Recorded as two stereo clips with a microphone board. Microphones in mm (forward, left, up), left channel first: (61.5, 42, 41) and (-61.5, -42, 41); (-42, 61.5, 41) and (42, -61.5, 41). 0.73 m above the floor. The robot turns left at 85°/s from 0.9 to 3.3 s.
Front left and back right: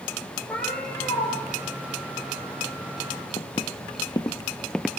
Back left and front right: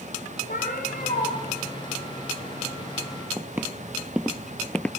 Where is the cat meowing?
115° left, 7 m; by 1.3 s 80° left, 7 m.